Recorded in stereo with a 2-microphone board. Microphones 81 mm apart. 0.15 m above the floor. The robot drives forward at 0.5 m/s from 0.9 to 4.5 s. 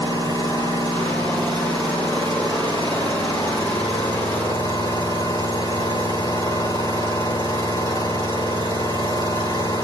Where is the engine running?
70° left (ahead or behind), 6.5 m; by 9.8 s 80° left, 6.5 m.